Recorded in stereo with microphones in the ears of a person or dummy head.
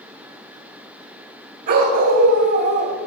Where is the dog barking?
55° right (ahead or behind), 3.5 m.